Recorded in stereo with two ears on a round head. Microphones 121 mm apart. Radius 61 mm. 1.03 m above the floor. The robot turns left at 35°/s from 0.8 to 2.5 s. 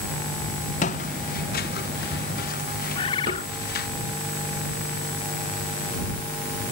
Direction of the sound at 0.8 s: 60° left (ahead or behind).